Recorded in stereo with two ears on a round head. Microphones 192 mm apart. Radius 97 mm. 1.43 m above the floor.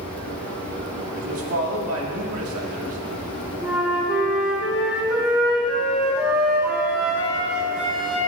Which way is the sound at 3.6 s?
5° right (ahead or behind).